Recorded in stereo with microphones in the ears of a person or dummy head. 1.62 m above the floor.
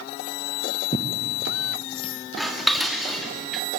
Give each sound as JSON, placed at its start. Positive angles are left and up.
{"t": 0.9, "sound": "tearing paper", "side_deg": 40, "distance_m": 1.4}
{"t": 2.4, "sound": "dishes clattering", "side_deg": 0, "distance_m": 2.0}